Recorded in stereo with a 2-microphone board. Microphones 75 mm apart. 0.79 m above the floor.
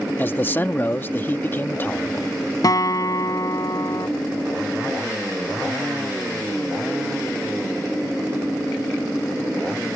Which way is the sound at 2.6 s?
60° left (ahead or behind).